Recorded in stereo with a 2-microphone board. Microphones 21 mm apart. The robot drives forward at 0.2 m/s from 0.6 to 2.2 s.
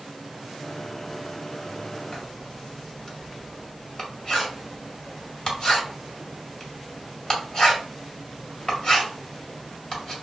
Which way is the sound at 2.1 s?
30° left (ahead or behind).